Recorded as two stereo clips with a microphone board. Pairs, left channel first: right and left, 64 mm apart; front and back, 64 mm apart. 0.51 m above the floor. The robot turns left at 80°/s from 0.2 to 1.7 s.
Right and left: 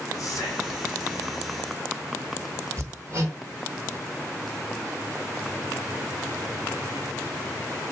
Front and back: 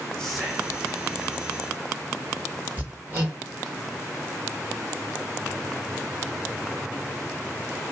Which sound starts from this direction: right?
Whispering, at 0.2 s.